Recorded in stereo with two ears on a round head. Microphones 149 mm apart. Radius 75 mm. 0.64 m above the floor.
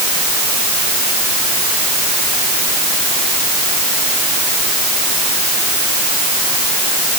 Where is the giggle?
I don't hear a giggle.